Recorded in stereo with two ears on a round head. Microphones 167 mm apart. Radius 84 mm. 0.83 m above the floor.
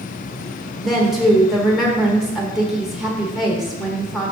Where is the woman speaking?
Centre (ahead or behind), 1.0 m.